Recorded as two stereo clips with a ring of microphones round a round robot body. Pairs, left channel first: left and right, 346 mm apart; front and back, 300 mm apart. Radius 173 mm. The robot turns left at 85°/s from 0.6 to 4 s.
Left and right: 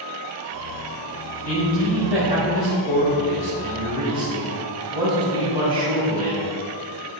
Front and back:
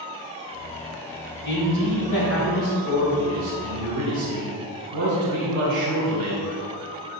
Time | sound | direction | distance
1.4 | a man speaking | 50° left | 2.5 m